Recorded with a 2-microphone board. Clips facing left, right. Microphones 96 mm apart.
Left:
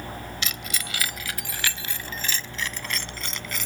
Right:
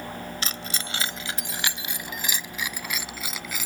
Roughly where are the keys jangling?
Right.